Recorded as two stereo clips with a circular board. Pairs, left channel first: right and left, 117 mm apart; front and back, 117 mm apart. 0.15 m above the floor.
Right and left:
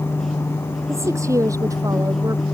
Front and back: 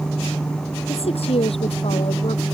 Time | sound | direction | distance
0.9 | a woman speaking | 25° left | ?